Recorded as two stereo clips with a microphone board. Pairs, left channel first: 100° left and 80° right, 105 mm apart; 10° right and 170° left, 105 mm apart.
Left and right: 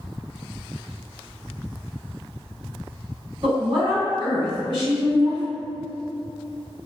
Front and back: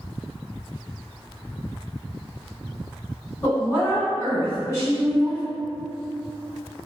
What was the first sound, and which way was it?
A woman speaking, 70° right.